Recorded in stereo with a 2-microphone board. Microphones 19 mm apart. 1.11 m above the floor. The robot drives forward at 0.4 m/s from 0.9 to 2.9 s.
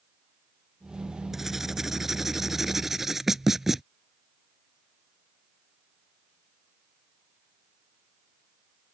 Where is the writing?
15° right (ahead or behind).